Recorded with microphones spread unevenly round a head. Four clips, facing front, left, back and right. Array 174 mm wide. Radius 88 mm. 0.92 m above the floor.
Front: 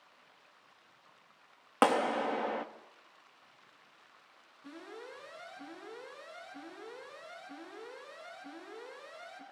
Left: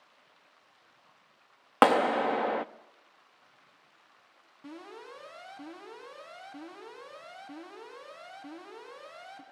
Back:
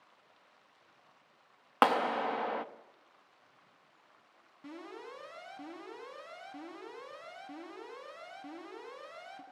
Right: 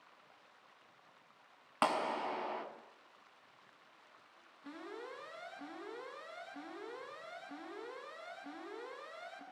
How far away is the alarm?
About 9.5 m.